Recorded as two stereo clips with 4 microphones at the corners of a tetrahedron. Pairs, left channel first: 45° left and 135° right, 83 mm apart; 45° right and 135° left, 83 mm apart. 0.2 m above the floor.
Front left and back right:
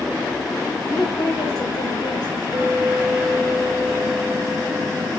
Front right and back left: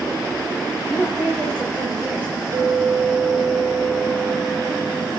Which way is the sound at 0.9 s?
75° left.